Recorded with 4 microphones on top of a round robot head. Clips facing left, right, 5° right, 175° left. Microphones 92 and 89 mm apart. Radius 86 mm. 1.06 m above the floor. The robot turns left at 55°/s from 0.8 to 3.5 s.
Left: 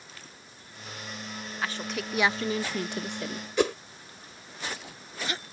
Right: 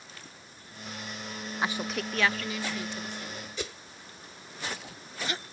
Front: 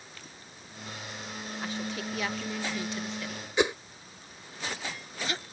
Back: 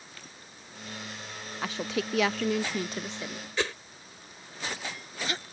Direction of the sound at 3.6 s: 60° left.